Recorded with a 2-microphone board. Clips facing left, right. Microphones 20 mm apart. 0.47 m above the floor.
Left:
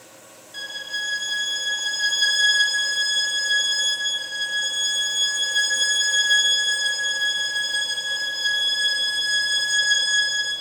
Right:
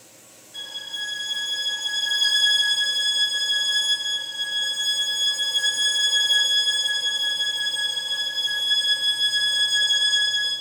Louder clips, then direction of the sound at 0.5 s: Left 2 dB; 35° left (ahead or behind).